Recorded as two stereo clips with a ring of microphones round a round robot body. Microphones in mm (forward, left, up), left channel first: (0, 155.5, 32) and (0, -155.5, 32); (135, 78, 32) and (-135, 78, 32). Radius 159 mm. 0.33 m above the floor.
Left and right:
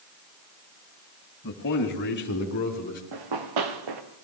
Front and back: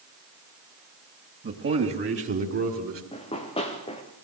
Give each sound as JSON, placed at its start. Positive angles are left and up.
{"t": 1.4, "sound": "a man speaking", "azimuth_deg": 140, "distance_m": 2.5}
{"t": 3.1, "sound": "running footsteps", "azimuth_deg": -75, "distance_m": 3.0}